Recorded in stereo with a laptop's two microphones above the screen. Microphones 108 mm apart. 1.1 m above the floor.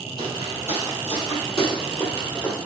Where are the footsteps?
40° right (ahead or behind), 2.5 m; by 2.6 s 25° left (ahead or behind), 3 m.